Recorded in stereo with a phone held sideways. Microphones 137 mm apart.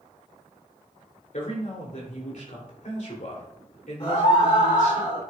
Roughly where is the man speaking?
Left.